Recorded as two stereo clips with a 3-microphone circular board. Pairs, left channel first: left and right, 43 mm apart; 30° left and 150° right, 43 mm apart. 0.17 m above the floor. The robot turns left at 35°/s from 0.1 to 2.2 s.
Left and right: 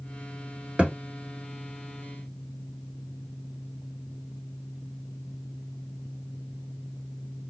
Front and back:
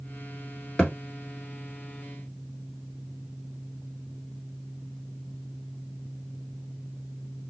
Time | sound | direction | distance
0.8 | a thud | 35° right | 1.3 m